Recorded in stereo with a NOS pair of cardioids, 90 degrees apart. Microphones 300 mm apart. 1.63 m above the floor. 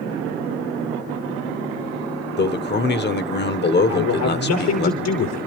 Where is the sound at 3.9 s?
70° left, 5 m.